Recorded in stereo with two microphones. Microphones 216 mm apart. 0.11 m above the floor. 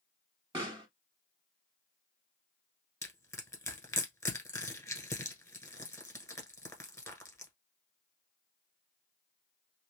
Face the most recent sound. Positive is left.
turn(degrees=15)  # may be behind; listen again after turning